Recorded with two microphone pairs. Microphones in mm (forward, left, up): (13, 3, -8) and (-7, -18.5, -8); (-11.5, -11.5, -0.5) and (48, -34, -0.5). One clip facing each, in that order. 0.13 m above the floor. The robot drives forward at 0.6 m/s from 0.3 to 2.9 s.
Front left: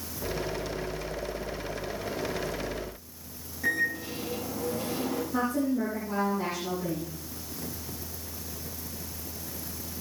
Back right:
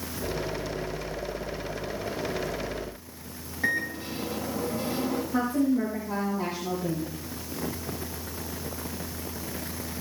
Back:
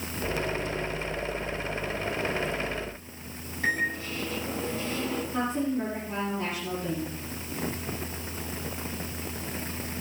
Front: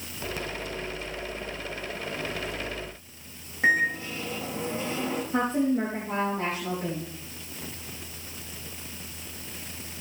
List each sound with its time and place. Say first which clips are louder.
3.6 s a microwave: even, front 5 dB; 80° right, 5 m
5.3 s a woman speaking: back right 3 dB, front 5 dB; 55° right, 5 m